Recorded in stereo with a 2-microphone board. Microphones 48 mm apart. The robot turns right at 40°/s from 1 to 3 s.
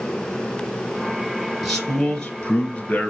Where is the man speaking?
Straight ahead, 1.4 m; by 3.1 s 55° left, 1.4 m.